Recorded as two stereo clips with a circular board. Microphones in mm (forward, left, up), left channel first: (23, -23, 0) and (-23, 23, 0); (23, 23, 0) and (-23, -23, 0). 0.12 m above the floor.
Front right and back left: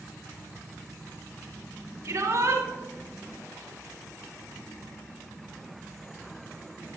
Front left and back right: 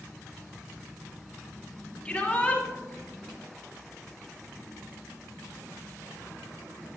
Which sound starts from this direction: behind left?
A shout, at 2.0 s.